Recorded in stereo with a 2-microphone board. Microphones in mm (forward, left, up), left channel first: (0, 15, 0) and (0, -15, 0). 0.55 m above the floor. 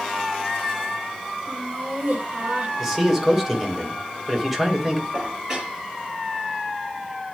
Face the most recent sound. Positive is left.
turn(degrees=-15)  # may be behind; listen again after turning